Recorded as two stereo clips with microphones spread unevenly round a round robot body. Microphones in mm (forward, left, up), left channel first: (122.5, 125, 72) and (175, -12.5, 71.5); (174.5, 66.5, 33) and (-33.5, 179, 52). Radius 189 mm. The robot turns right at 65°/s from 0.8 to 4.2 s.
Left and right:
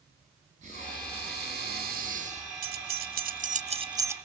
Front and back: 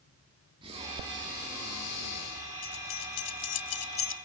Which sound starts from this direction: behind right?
Breathing, at 0.6 s.